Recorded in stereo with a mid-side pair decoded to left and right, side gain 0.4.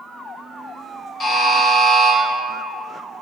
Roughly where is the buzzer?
Ahead left.